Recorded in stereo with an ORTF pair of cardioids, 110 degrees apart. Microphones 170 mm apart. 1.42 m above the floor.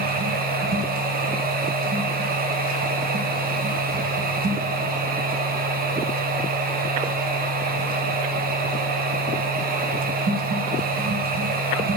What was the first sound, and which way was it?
A machine running, 55° right.